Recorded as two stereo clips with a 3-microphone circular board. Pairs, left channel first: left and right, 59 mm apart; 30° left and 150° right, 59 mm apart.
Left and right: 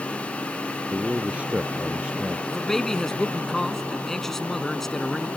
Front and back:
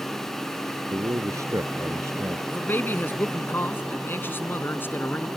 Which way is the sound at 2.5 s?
10° left.